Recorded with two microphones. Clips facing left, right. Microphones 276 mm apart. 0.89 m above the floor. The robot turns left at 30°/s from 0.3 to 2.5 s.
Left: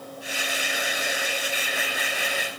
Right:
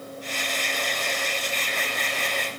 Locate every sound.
Only background noise.